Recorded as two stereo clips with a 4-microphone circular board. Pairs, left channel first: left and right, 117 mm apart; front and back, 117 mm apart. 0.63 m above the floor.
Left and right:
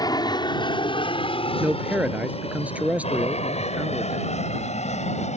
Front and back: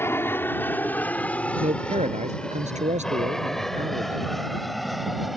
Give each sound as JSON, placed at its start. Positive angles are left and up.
{"t": 0.0, "sound": "an aircraft", "azimuth_deg": 60}
{"t": 1.6, "sound": "a man speaking", "azimuth_deg": -170}